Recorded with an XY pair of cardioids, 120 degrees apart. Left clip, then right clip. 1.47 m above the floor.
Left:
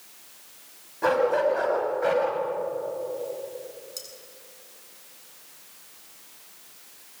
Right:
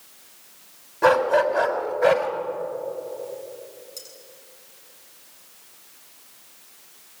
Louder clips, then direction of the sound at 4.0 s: Left 1 dB; 15° left.